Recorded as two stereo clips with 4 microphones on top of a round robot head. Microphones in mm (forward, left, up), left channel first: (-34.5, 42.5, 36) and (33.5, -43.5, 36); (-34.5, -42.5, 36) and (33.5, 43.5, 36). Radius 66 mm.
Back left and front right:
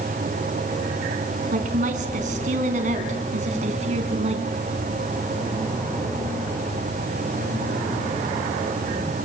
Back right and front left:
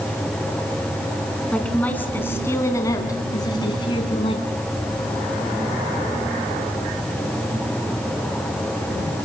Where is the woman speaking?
45° right, 4.5 m; by 4.5 s 85° right, 4.5 m.